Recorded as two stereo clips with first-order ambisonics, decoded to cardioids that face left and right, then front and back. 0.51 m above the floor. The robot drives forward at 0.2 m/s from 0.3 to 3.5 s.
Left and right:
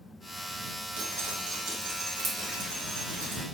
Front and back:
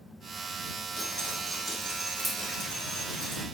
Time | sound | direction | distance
1.0 | dripping | 105° right | 2.5 m